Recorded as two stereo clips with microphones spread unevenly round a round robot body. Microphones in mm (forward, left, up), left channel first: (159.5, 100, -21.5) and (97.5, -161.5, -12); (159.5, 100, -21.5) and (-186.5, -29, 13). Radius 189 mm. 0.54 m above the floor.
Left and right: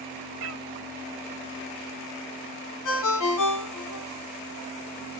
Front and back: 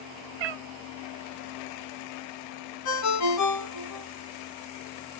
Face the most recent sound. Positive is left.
turn(degrees=70)